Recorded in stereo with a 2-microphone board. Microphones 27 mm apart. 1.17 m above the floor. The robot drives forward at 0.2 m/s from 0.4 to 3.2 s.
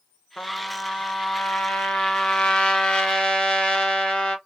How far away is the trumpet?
About 0.5 m.